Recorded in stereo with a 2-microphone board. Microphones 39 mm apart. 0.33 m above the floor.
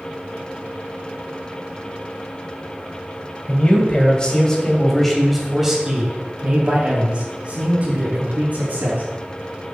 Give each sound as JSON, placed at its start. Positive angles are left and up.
{"t": 3.5, "sound": "a man speaking", "side_deg": 35, "distance_m": 2.5}